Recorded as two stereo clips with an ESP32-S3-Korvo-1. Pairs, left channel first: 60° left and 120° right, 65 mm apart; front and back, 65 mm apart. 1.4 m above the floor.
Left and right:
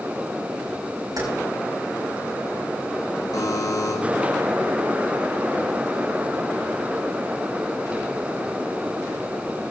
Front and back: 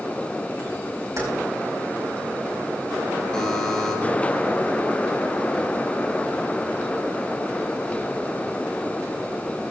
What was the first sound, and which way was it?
Keys jangling, 145° right.